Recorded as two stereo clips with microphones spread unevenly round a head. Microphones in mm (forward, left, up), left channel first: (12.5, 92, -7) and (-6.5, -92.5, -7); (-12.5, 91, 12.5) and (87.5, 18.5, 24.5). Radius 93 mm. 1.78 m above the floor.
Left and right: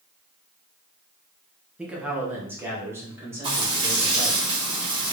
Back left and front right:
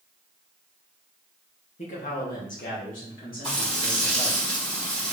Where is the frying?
155° right, 2 m.